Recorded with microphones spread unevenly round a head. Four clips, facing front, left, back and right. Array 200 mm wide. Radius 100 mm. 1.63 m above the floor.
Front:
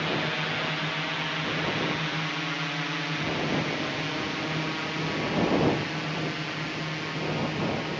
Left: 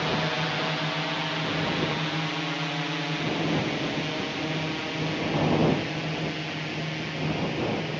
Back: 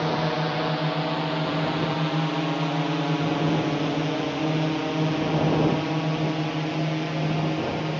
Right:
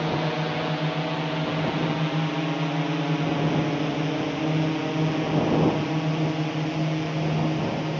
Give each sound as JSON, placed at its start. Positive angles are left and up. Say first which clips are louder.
{"t": 0.0, "sound": "a drone", "louder": "right 2 dB, back 5 dB", "azimuth_deg": -145}